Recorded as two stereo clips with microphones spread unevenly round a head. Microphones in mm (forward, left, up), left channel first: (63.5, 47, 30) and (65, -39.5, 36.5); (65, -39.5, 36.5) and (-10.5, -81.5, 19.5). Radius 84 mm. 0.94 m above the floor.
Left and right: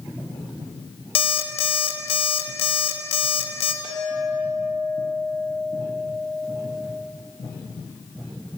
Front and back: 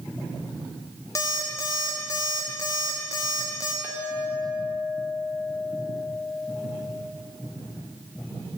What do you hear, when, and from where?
1.1 s an alarm clock: 100° left, 0.9 m
3.8 s a clink: 90° right, 1.9 m